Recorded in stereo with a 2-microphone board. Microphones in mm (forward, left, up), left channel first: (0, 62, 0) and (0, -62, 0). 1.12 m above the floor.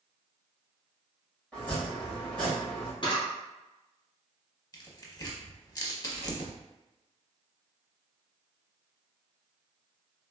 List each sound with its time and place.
1.5 s chopping: 10° left (ahead or behind), 2.0 m
3.0 s a camera shutter: 40° left (ahead or behind), 1.2 m
4.7 s tearing paper: 30° left (ahead or behind), 0.6 m